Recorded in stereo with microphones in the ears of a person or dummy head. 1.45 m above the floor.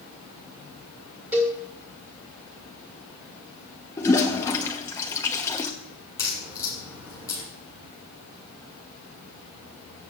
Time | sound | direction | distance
1.3 | a cowbell | 5° right (ahead or behind) | 2.5 m
4.0 | a toilet flushing | 20° left (ahead or behind) | 1.1 m
6.2 | a crack | 10° left (ahead or behind) | 6.5 m